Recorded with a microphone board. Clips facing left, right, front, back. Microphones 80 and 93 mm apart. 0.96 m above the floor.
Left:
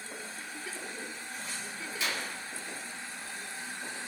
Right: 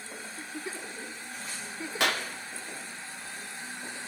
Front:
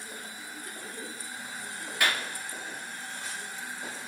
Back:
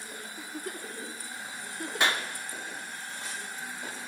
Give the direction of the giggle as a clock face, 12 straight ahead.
5 o'clock.